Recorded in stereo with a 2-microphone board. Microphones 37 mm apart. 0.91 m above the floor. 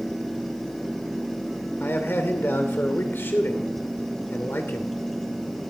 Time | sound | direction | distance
1.8 | a man speaking | 85° left | 2.5 m